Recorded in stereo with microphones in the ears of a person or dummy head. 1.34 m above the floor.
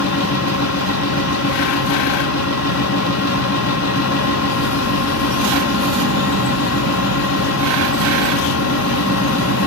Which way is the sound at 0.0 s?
80° left.